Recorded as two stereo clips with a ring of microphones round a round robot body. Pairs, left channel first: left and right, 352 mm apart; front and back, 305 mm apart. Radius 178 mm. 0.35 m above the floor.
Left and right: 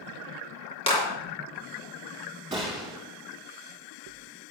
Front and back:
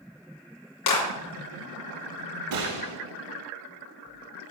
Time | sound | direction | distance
0.9 | a clap | 15° left | 4 m
2.5 | a gunshot | 165° right | 5 m